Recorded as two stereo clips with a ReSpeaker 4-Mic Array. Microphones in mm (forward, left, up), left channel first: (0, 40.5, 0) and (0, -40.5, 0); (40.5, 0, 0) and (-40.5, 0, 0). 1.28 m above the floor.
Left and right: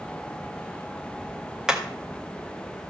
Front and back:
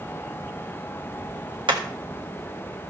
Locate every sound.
1.7 s hammering: 170° right, 1.8 m